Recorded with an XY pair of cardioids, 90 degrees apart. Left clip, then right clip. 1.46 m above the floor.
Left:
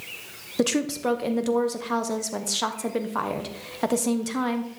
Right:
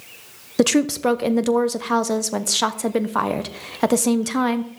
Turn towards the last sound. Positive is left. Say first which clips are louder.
# right 6 dB
turn(degrees=-50)